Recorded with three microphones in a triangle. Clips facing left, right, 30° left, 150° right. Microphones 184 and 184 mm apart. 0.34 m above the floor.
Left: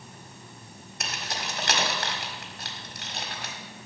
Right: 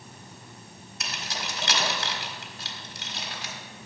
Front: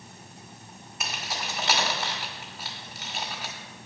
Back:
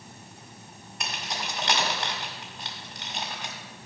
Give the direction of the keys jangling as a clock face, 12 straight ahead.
8 o'clock.